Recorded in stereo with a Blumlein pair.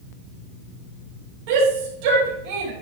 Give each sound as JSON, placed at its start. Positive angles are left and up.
{"t": 1.5, "sound": "a shout", "azimuth_deg": -45, "distance_m": 6.5}